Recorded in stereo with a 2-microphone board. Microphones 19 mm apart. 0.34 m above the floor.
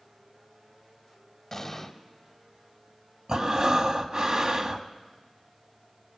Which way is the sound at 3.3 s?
45° right (ahead or behind).